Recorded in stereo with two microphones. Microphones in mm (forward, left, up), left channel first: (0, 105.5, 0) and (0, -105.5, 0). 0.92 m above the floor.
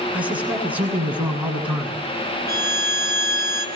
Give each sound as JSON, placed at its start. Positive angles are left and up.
{"t": 0.1, "sound": "a man speaking", "side_deg": -5, "distance_m": 8.5}
{"t": 2.5, "sound": "a violin", "side_deg": -50, "distance_m": 4.5}